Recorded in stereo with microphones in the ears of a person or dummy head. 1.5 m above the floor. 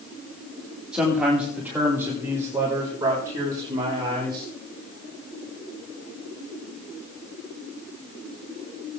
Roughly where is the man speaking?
Centre.